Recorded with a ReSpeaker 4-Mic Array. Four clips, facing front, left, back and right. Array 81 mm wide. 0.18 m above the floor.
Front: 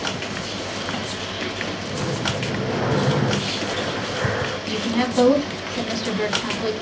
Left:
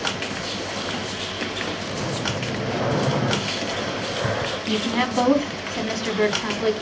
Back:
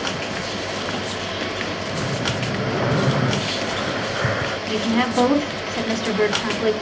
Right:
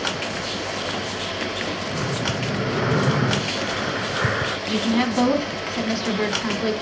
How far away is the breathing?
About 2.5 m.